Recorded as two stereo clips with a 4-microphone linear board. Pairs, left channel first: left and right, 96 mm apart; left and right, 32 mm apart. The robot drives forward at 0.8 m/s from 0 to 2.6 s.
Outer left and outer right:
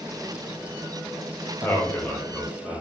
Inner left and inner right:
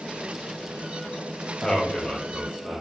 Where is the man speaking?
25° left (ahead or behind), 1.2 m; by 2.8 s 15° left (ahead or behind), 1.8 m.